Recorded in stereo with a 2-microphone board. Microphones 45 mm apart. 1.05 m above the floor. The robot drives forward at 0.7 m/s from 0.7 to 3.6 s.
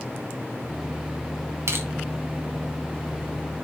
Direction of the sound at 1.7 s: 75° right (ahead or behind).